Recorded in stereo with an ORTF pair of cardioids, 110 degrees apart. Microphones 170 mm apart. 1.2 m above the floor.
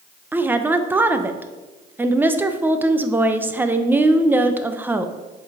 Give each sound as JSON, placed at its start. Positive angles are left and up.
{"t": 0.3, "sound": "a woman speaking", "azimuth_deg": -10, "distance_m": 0.7}